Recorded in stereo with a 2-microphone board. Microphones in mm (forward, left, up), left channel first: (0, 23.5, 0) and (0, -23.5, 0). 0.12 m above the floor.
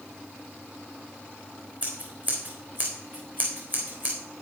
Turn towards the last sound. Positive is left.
turn(degrees=-45)  # may be behind; listen again after turning